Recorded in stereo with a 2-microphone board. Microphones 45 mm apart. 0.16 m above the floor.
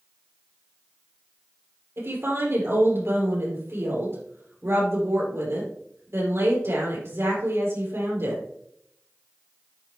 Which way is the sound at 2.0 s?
65° right (ahead or behind).